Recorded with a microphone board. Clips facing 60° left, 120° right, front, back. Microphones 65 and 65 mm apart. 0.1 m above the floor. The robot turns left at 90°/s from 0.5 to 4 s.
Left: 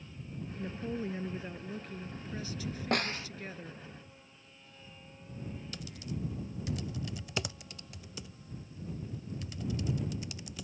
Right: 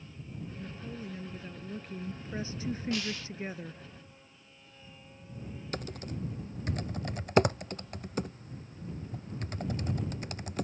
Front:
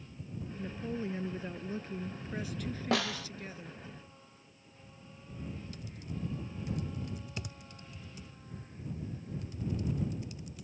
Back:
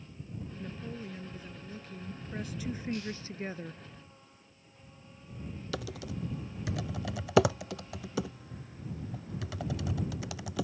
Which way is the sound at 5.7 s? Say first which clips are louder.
Right 6 dB, back 6 dB; 170° right.